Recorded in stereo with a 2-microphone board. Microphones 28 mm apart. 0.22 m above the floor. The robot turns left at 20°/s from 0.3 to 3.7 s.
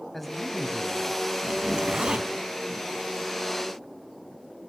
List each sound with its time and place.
0.1 s a man speaking: 5° left (ahead or behind), 1.1 m; by 1.2 s centre (ahead or behind), 1.1 m
1.5 s a zipper: 45° right (ahead or behind), 0.8 m; by 2.3 s 40° right (ahead or behind), 0.8 m